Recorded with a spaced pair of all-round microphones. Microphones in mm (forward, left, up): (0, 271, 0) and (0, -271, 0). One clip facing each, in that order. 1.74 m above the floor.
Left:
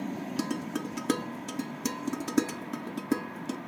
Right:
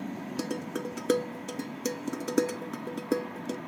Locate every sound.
0.4 s dishes clattering: 20° left (ahead or behind), 0.7 m